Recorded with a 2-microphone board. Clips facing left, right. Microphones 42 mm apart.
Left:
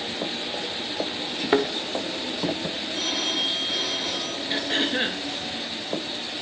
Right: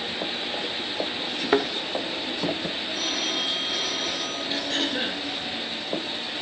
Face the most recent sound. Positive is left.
turn(degrees=30)  # may be behind; listen again after turning